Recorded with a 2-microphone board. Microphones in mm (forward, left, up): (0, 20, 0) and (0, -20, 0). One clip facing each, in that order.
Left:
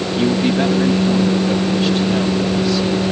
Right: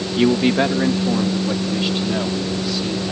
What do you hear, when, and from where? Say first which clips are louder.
0.2 s a man speaking: right 1 dB; 30° right (ahead or behind); by 3.1 s 5° right (ahead or behind)